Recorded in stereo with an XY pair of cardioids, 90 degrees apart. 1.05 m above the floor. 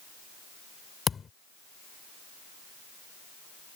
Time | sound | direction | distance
1.1 | a thud | 45° left | ?